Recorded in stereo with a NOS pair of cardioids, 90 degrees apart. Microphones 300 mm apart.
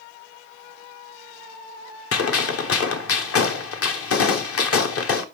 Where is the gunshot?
50° left, 1.1 m.